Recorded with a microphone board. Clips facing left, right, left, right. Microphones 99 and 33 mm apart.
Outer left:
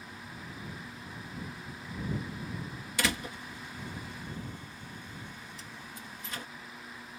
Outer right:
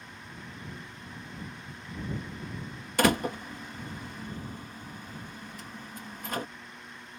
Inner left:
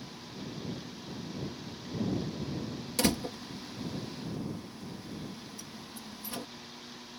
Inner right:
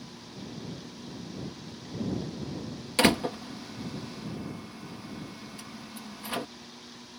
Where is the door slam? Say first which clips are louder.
Outer right 9 dB, inner right 7 dB; 45° right (ahead or behind).